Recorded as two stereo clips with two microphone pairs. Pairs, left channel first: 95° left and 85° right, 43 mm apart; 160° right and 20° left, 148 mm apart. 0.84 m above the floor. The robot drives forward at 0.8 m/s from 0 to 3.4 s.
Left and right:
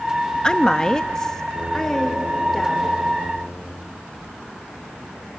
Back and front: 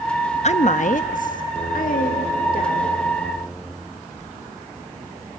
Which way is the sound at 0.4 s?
165° left.